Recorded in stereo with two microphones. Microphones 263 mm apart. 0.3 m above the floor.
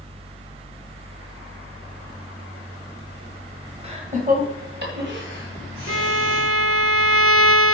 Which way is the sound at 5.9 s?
65° right (ahead or behind).